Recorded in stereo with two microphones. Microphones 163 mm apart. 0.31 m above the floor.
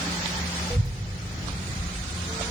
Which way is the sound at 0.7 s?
30° right (ahead or behind).